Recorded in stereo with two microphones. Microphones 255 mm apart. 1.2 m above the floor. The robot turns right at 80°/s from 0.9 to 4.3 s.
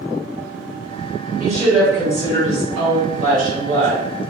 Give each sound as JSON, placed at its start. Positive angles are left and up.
{"t": 1.4, "sound": "a woman speaking", "azimuth_deg": -35, "distance_m": 1.8}